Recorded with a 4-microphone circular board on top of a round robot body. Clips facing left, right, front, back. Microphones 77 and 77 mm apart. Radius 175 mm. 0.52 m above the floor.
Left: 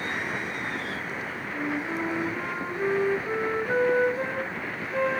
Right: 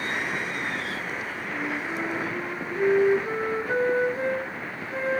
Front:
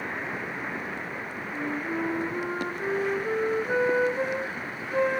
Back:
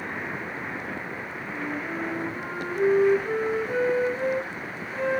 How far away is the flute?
About 1.8 m.